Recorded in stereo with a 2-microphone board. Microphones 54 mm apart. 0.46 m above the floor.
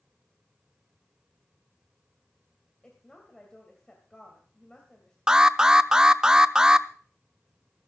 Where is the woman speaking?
15° left (ahead or behind), 2.5 m.